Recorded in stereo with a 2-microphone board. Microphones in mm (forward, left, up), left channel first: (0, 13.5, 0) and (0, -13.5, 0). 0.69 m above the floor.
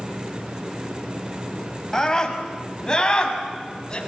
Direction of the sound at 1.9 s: 20° left (ahead or behind).